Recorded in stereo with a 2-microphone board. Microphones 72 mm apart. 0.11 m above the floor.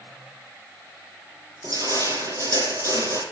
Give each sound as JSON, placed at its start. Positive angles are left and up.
{"t": 1.6, "sound": "crushing", "side_deg": -60, "distance_m": 4.0}